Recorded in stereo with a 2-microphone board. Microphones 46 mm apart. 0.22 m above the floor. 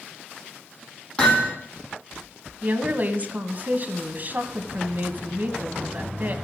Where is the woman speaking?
40° right (ahead or behind), 1.2 m.